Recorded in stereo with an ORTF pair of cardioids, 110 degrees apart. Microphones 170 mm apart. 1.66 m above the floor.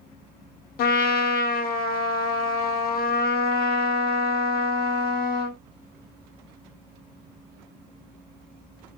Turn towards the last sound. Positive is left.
turn(degrees=65)